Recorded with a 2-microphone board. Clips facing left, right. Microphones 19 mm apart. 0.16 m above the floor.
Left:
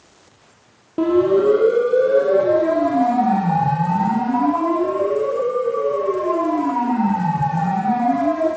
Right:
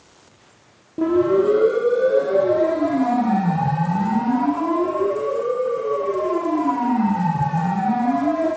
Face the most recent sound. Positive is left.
turn(degrees=60)  # may be behind; listen again after turning